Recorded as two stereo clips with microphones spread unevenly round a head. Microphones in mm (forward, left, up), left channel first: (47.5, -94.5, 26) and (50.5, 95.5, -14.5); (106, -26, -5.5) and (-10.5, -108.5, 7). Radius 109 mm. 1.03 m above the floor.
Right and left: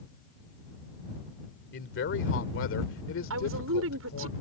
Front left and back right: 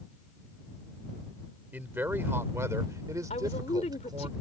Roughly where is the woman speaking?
Left.